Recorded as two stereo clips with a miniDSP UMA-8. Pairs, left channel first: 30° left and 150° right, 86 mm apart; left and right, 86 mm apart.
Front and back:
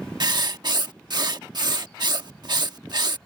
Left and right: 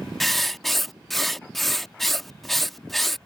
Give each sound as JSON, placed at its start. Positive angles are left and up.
{"t": 0.2, "sound": "writing", "azimuth_deg": 180}